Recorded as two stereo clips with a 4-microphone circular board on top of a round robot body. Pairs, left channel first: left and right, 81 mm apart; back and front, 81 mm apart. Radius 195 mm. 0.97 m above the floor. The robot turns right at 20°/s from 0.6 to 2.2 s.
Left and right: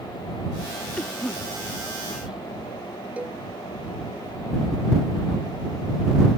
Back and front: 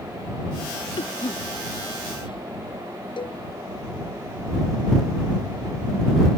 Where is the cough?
165° left; by 2.4 s 170° right.